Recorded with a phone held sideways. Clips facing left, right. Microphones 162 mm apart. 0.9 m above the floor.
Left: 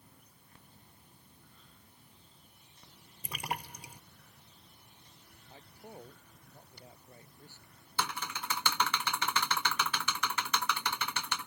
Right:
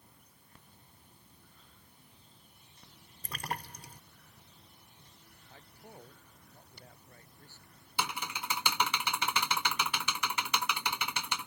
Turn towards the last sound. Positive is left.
turn(degrees=-15)  # may be behind; listen again after turning